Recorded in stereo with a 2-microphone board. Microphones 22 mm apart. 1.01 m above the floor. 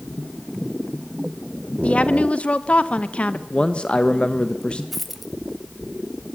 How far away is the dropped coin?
About 1.3 m.